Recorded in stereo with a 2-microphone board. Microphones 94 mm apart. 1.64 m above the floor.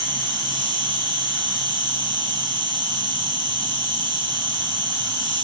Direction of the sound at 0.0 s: 60° right (ahead or behind).